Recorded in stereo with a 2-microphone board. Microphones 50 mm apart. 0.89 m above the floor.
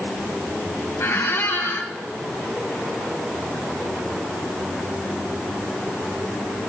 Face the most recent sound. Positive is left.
turn(degrees=60)  # may be behind; listen again after turning